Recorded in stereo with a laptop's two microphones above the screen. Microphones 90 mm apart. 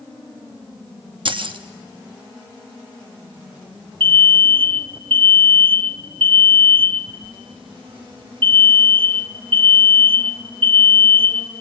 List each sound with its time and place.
1.2 s keys jangling: 65° right (ahead or behind), 0.9 m
4.0 s an alarm: 65° right (ahead or behind), 0.9 m